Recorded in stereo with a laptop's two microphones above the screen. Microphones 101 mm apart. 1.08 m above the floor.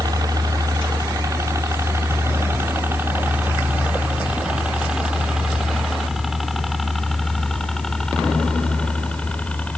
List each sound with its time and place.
0.0 s a helicopter: 40° right (ahead or behind); by 9.8 s 15° left (ahead or behind)